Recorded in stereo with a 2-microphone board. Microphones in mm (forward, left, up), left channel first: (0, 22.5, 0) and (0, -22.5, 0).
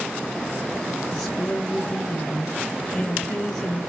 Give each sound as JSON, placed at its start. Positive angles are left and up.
{"t": 1.1, "sound": "a woman speaking", "side_deg": 10, "distance_m": 3.0}